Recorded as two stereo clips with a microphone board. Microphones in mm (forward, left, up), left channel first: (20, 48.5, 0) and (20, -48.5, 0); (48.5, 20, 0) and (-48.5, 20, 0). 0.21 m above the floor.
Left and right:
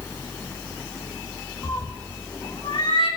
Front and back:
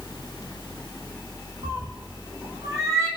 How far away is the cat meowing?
About 2.5 m.